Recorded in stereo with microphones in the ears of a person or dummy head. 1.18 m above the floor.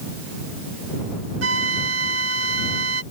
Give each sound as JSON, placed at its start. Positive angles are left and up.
{"t": 1.4, "sound": "a flute", "side_deg": -80}